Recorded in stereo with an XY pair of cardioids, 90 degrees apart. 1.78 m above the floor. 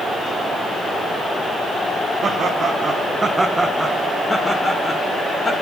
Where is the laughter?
65° right, 1.8 m; by 5.5 s 40° left, 2.5 m.